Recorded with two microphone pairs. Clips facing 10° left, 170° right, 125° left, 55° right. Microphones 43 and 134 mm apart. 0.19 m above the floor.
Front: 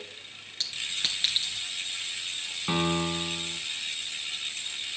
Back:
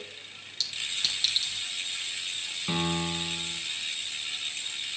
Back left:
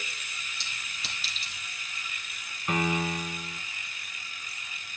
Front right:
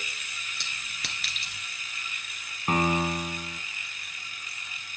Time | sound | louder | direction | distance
0.6 | a clink | even, front right 1 dB | 40° right | 2 m
2.7 | a piano | front 3 dB, front right 3 dB | 40° right | 1.5 m